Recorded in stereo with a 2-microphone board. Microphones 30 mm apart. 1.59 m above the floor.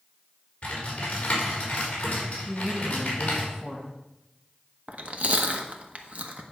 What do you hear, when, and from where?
0.6 s typing on a keyboard: 40° left (ahead or behind), 4 m
2.5 s a woman speaking: centre (ahead or behind), 2 m
4.9 s chewing: 50° right (ahead or behind), 1.1 m